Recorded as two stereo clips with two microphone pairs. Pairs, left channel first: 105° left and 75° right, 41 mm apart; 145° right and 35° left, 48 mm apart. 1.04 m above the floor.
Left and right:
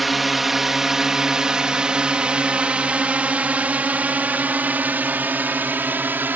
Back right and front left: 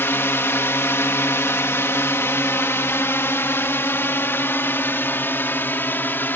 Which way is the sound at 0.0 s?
160° right.